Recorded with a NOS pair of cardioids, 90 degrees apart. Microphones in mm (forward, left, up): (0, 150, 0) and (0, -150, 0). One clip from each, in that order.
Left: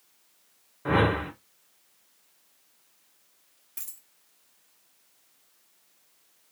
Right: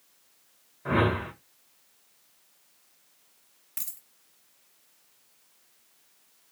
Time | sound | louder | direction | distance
0.8 | a whoosh | left 2 dB | 30° left | 0.7 m
3.8 | a dropped coin | right 3 dB | 40° right | 1.2 m